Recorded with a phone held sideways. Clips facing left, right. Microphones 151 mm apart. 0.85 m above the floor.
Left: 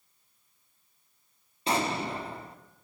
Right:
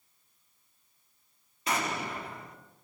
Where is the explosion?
30° left (ahead or behind), 2.0 m.